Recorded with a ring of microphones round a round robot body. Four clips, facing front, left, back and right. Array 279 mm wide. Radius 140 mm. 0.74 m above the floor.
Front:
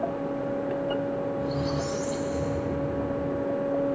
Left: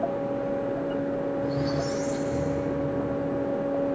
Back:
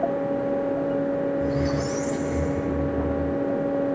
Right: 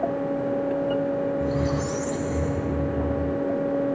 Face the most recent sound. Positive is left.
turn(degrees=-100)